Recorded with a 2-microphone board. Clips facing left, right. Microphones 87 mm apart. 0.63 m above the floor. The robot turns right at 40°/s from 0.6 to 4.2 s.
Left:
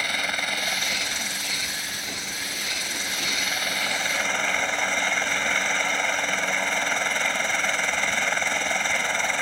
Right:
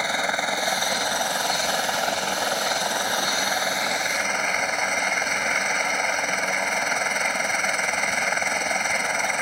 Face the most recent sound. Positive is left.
turn(degrees=-5)